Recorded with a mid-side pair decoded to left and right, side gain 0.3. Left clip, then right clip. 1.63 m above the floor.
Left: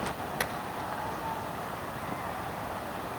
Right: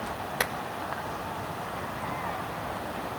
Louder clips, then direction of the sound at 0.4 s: Right 4 dB; 50° right.